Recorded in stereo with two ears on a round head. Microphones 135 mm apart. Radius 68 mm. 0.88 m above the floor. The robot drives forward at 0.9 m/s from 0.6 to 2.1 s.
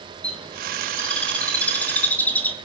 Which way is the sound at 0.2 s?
5° left (ahead or behind).